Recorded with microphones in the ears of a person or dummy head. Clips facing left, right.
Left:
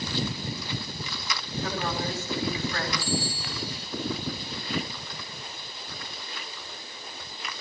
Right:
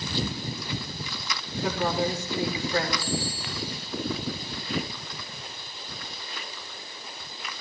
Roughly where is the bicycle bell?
Centre.